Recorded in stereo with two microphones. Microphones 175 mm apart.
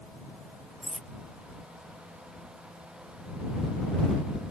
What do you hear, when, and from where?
0.8 s cutlery clinking: 5° right (ahead or behind)